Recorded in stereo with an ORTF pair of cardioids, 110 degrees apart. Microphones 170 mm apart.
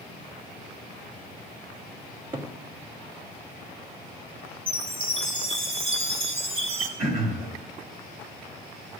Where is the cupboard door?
30° right, 1.3 m.